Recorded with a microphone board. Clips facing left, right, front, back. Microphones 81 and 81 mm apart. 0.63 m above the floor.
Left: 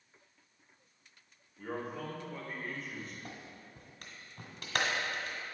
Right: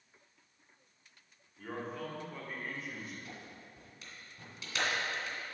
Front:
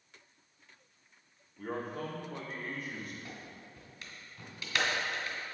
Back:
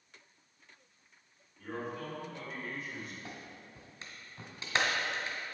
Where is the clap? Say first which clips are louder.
Left 1 dB, even; 120° left, 1.8 m.